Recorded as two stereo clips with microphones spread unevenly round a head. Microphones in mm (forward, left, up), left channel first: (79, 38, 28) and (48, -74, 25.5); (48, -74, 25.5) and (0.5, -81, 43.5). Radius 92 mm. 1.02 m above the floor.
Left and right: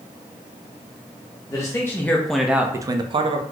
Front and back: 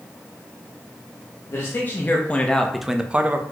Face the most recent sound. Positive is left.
turn(degrees=-105)